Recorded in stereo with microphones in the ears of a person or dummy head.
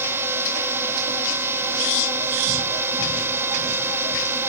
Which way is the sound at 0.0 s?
15° right (ahead or behind).